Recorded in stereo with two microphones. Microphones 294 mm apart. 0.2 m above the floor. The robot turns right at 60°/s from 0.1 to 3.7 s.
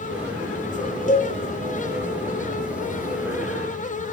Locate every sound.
1.1 s a cowbell: 25° left (ahead or behind), 0.9 m; by 1.3 s 40° left (ahead or behind), 0.9 m